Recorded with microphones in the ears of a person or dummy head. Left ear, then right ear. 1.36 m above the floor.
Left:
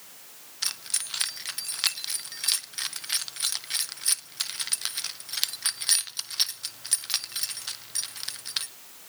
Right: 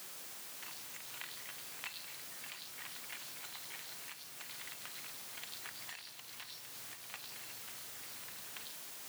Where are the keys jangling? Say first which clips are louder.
Left 21 dB; 75° left (ahead or behind), 1.3 m.